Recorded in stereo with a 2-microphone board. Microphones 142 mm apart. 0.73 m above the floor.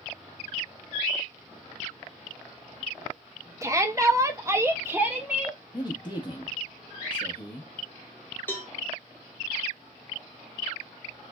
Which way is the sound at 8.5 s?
15° left (ahead or behind).